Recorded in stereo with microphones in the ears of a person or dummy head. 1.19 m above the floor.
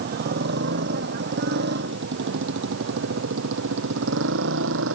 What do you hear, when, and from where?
0.0 s a motorcycle: 50° right (ahead or behind); by 5.0 s 65° right (ahead or behind)